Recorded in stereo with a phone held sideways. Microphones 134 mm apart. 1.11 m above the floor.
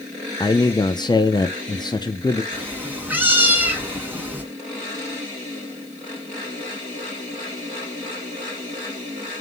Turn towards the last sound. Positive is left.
turn(degrees=-15)  # may be behind; listen again after turning